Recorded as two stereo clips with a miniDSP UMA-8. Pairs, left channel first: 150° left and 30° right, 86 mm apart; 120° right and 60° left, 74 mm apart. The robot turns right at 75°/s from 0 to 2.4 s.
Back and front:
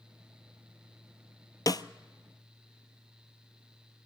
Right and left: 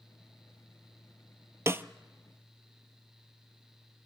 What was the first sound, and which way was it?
A snare drum, 110° left.